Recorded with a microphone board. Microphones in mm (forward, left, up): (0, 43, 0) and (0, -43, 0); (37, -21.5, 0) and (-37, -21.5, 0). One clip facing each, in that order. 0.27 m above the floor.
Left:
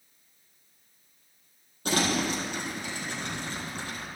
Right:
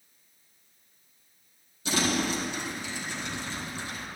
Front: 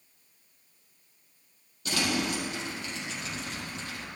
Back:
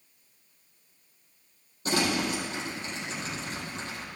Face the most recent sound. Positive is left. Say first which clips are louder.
# left 1 dB, back 2 dB
turn(degrees=125)